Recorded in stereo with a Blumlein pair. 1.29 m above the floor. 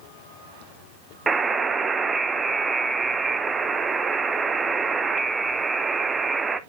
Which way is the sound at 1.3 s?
15° right.